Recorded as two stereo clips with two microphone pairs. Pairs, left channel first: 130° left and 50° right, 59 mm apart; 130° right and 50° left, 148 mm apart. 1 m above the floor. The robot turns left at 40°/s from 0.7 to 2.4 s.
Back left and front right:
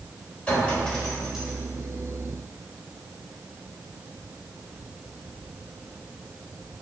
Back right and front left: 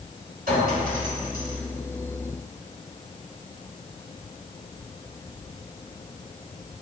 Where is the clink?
60° left, 3.5 m; by 1.6 s 25° left, 3.5 m.